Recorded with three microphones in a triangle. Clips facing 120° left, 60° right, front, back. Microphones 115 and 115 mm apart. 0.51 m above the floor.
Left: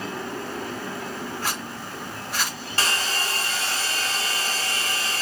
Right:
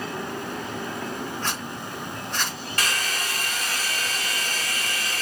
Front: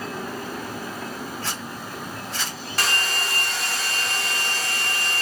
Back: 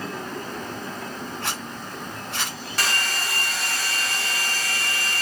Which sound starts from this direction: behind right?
A zipper, at 1.4 s.